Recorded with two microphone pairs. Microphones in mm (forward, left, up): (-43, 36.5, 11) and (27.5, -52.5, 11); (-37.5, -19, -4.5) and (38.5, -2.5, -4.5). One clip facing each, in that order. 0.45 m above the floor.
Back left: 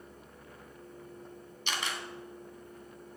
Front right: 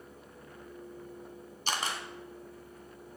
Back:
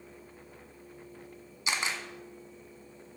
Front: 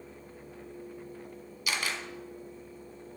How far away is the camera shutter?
About 1.7 m.